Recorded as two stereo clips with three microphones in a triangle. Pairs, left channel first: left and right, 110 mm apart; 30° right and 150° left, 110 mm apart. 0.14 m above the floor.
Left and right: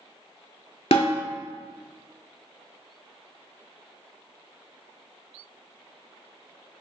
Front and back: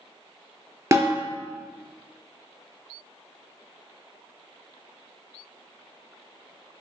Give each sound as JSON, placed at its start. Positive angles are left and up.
{"t": 0.9, "sound": "a snare drum", "azimuth_deg": 90, "distance_m": 0.8}